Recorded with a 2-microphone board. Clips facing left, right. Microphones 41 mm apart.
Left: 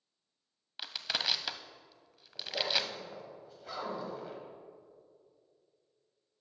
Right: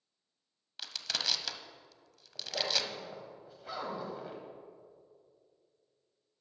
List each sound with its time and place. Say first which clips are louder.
0.8 s crushing: left 2 dB; 15° left (ahead or behind), 0.5 m
2.4 s a zipper: left 1 dB; 5° right (ahead or behind), 1.8 m